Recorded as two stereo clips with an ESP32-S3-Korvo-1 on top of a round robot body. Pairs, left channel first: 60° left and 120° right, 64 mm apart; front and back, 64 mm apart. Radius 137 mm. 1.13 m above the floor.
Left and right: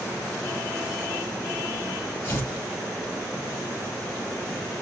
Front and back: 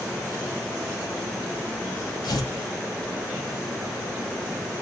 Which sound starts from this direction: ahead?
Tearing paper, at 2.2 s.